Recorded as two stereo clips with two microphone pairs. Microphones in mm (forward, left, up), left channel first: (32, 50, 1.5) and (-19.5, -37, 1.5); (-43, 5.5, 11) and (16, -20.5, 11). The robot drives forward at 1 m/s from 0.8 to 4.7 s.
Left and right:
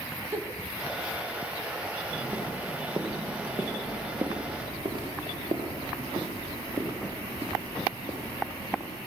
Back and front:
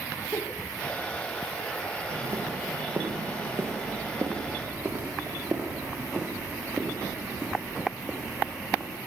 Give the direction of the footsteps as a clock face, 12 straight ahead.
1 o'clock.